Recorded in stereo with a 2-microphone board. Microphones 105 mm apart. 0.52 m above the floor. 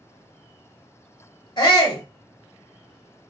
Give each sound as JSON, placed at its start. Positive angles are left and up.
{"t": 1.6, "sound": "a shout", "side_deg": 40, "distance_m": 1.0}